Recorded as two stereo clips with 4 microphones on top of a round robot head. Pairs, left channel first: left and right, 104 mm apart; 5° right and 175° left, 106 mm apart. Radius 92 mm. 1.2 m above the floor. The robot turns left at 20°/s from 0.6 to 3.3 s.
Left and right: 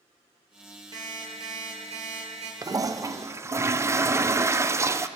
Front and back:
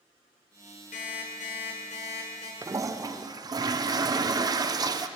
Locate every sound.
0.9 s an alarm clock: 25° right, 1.9 m; by 2.5 s 55° right, 1.9 m
2.6 s a toilet flushing: 135° right, 0.5 m; by 5.1 s 145° right, 0.5 m